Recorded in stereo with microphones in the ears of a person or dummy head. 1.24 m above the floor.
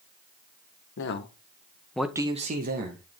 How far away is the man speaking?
About 1.2 m.